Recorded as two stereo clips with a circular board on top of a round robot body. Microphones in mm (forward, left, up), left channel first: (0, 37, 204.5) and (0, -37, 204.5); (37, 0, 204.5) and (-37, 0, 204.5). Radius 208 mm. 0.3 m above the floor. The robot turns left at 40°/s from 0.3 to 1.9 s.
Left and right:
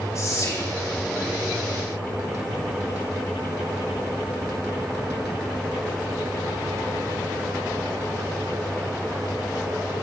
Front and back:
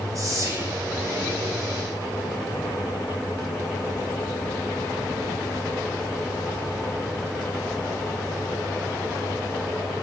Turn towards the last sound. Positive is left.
turn(degrees=75)